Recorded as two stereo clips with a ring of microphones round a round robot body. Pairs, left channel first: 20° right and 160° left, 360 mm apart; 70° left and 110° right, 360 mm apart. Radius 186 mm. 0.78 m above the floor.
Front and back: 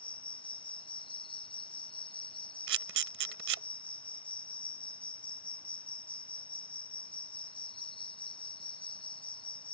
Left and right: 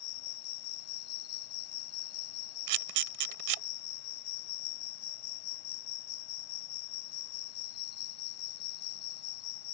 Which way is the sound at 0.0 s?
55° left.